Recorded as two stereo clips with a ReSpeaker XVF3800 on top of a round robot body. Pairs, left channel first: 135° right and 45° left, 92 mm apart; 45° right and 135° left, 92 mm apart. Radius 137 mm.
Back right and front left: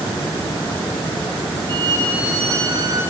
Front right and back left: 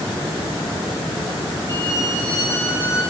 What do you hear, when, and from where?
1.7 s a violin: 10° left, 5.5 m